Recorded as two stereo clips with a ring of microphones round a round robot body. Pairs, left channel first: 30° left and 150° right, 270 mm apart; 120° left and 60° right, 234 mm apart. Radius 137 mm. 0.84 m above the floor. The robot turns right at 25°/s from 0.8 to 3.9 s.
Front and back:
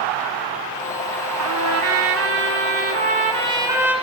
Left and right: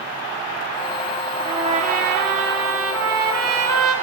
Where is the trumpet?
130° right, 1.9 m; by 3.9 s 70° right, 1.9 m.